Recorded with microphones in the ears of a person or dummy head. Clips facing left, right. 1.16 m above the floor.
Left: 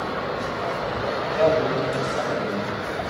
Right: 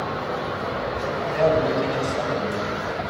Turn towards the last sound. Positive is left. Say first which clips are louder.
# even
turn(degrees=0)  # may be behind; listen again after turning